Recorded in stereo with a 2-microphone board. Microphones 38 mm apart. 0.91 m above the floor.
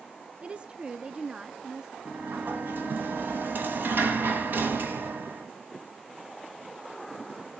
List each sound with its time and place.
0.4 s a woman speaking: 25° right (ahead or behind), 0.5 m; by 1.9 s 20° right (ahead or behind), 1.2 m
2.0 s a sliding door: 60° right (ahead or behind), 1.5 m